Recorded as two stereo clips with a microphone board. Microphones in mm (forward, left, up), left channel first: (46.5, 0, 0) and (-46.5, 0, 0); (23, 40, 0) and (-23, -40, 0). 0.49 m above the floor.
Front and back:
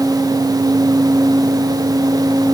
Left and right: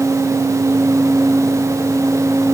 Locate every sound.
Only background noise.